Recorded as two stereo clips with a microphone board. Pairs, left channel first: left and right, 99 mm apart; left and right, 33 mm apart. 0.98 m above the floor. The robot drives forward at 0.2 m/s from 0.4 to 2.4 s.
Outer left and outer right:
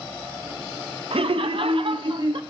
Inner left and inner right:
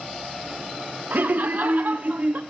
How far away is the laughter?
About 0.5 m.